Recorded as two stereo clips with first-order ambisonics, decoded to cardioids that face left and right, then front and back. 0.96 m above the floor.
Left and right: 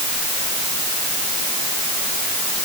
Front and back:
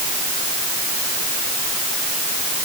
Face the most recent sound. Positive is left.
No sound to turn to.